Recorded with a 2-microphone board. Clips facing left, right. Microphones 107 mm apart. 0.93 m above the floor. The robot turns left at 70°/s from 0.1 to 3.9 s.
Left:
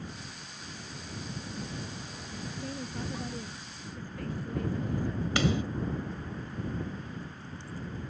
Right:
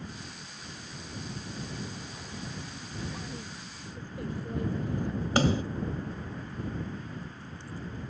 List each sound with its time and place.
2.4 s a woman speaking: 80° left; by 5.3 s 20° right
5.4 s a snare drum: 40° right (ahead or behind)